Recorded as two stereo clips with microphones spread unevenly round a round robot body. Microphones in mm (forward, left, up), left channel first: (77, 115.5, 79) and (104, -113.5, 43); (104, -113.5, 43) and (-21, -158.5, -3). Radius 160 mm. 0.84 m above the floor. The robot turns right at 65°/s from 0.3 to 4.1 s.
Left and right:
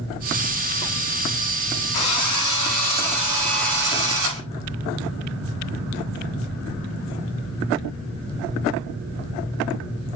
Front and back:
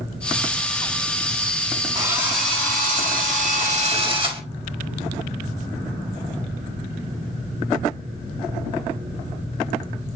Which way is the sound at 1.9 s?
110° left.